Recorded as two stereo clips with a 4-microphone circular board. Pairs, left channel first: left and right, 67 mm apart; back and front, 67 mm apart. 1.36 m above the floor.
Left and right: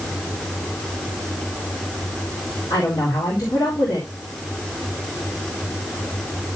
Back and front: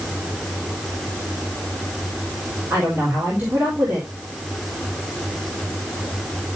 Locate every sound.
2.7 s a woman speaking: 65° left, 4 m